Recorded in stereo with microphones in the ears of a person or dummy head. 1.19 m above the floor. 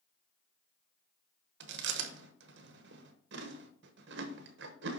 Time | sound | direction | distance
1.6 | chewing | 60° right (ahead or behind) | 1.1 m